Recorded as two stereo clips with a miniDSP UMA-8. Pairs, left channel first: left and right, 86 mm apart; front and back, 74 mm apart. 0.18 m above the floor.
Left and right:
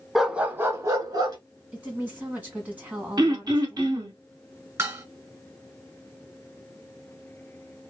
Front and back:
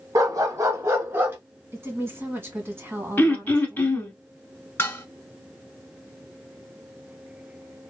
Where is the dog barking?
175° right, 0.6 m; by 1.4 s 120° right, 1.0 m.